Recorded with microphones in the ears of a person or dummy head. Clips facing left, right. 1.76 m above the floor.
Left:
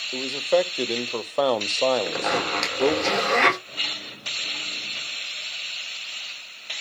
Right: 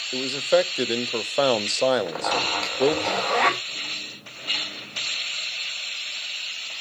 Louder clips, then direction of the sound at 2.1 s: Left 1 dB; 40° left (ahead or behind).